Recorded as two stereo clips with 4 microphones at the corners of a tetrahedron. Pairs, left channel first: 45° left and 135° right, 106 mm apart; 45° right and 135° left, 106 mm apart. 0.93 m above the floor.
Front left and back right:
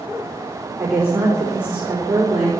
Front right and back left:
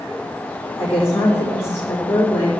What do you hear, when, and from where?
0.8 s a woman speaking: 60° right, 3.5 m